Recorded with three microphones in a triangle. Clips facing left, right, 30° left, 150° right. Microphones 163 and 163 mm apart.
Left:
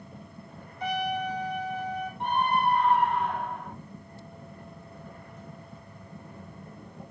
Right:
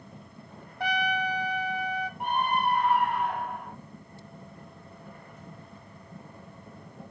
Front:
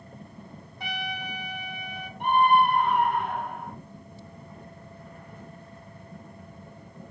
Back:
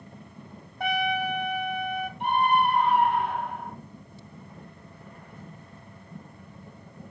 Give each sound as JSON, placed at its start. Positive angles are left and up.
{"t": 0.8, "sound": "a trumpet", "azimuth_deg": -110, "distance_m": 0.7}
{"t": 2.2, "sound": "a scream", "azimuth_deg": -10, "distance_m": 3.0}